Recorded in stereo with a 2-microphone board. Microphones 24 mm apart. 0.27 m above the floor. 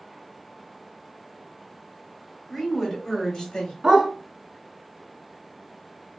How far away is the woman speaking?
About 1.3 m.